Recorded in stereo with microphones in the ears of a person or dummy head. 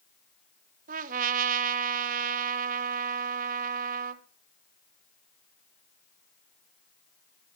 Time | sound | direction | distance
0.9 | a trumpet | 45° right (ahead or behind) | 1.2 m